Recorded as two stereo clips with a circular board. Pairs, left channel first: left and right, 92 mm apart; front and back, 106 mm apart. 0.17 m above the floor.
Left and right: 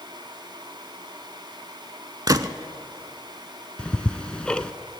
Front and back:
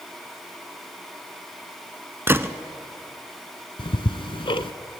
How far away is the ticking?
About 0.7 m.